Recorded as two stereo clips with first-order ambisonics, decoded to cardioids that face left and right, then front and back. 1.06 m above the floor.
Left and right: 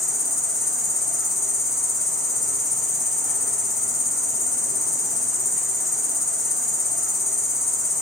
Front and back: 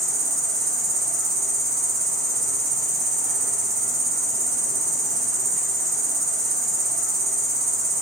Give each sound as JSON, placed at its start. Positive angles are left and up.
{"t": 0.0, "sound": "an insect", "azimuth_deg": 160, "distance_m": 2.0}